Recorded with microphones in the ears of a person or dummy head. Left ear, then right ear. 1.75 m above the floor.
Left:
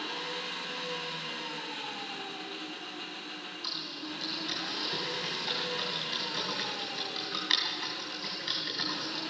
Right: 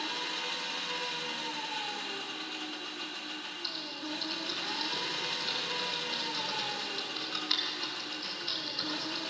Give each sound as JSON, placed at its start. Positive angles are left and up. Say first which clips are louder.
{"t": 0.0, "sound": "an engine running", "louder": "right 1 dB", "side_deg": -10, "distance_m": 0.8}
{"t": 3.6, "sound": "typing on a keyboard", "louder": "left 2 dB", "side_deg": 45, "distance_m": 3.5}